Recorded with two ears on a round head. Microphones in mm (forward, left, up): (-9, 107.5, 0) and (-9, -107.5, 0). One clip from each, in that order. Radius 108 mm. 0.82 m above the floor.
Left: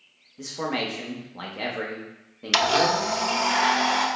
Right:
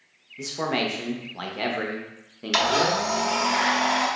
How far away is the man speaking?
About 0.5 m.